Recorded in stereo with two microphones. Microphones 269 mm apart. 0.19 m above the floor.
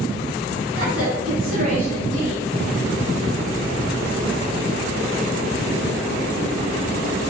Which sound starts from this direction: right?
A woman speaking, at 0.8 s.